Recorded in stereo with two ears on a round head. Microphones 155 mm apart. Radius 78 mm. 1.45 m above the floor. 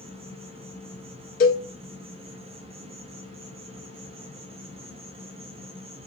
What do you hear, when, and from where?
0.0 s an insect: 35° right (ahead or behind), 1.2 m
1.4 s a cowbell: 55° left (ahead or behind), 1.5 m